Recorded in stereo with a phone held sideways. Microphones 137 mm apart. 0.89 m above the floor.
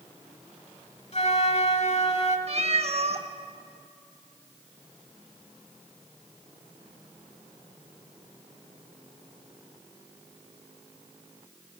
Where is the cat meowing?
50° right (ahead or behind), 0.7 m.